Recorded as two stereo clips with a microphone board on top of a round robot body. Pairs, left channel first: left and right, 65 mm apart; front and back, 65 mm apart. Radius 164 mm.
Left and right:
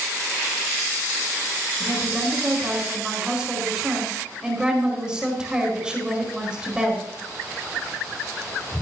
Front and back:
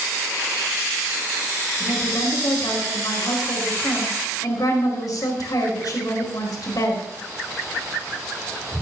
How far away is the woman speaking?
About 4.5 m.